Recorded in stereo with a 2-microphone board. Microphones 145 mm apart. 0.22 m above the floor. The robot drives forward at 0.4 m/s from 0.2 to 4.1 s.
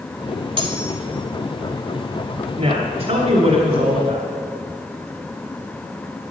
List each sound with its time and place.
0.6 s cutlery clinking: 40° right (ahead or behind), 1.0 m; by 1.0 s 35° right (ahead or behind), 1.1 m
2.6 s a woman speaking: 45° right (ahead or behind), 1.5 m; by 4.2 s 50° right (ahead or behind), 1.4 m